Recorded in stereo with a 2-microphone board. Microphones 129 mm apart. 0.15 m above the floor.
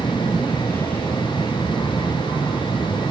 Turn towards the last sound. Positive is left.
turn(degrees=15)  # may be behind; listen again after turning